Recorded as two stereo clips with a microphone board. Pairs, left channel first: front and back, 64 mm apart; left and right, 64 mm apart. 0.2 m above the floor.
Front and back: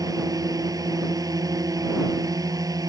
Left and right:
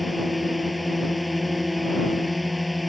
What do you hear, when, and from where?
0.0 s a drone: straight behind